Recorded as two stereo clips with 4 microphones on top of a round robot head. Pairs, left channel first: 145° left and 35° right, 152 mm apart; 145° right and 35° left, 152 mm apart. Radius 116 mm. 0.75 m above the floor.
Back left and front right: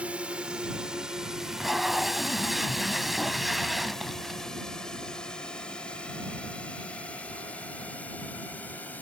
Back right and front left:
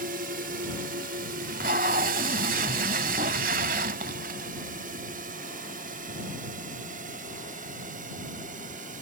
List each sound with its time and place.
0.0 s a drone: 50° left; by 9.0 s 65° left
1.4 s tape being pulled: 55° left